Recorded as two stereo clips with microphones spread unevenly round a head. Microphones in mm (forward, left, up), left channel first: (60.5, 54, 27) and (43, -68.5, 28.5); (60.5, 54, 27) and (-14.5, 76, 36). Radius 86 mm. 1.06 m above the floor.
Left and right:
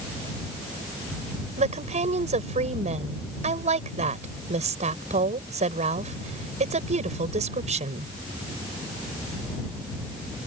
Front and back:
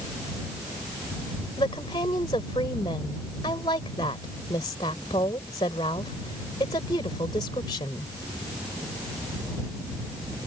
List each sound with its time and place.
1.6 s a woman speaking: 70° right